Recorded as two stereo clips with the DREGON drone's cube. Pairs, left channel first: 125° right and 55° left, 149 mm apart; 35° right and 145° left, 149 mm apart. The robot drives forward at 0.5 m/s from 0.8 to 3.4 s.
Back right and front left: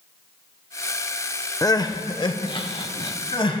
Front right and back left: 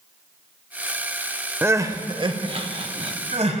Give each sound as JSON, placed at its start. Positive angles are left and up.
{"t": 1.6, "sound": "crying", "azimuth_deg": -155, "distance_m": 0.5}